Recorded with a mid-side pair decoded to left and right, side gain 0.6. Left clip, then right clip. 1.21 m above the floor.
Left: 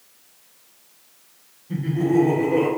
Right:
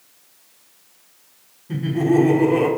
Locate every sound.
1.7 s laughter: 40° right, 3 m